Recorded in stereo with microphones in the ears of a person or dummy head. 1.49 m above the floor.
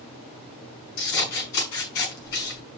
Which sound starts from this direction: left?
Scissors, at 1.0 s.